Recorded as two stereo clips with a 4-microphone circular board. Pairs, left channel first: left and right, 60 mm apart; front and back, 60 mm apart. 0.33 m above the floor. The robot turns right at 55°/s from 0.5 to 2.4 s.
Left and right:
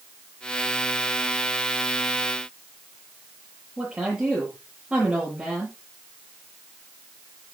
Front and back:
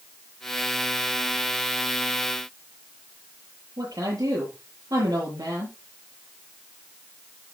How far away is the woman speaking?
About 8 m.